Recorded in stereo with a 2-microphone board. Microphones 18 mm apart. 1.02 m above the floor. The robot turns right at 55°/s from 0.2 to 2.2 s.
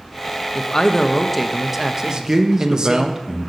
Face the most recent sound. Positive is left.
turn(degrees=-20)  # may be behind; listen again after turning